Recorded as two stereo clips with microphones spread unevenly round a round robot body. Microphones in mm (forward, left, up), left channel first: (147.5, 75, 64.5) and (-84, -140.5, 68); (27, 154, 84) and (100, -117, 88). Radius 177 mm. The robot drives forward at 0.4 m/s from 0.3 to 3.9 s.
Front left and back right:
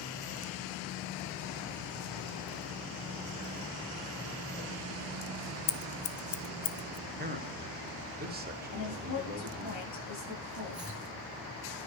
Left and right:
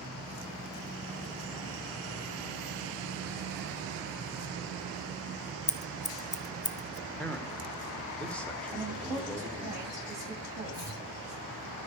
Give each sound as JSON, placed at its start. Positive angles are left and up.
{"t": 5.7, "sound": "scissors", "azimuth_deg": 50, "distance_m": 0.9}
{"t": 7.1, "sound": "a man speaking", "azimuth_deg": -175, "distance_m": 1.7}
{"t": 8.7, "sound": "a woman speaking", "azimuth_deg": 5, "distance_m": 9.5}
{"t": 10.7, "sound": "chopping", "azimuth_deg": 135, "distance_m": 3.0}